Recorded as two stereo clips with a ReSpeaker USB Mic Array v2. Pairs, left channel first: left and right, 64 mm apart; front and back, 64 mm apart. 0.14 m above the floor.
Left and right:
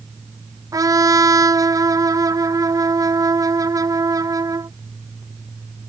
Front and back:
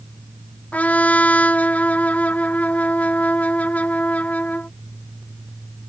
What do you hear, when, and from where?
0.7 s a trumpet: 65° right